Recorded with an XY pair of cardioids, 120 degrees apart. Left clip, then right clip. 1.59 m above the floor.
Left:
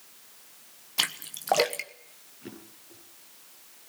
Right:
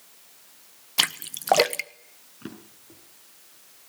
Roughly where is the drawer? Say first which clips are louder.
Right 3 dB; ahead right.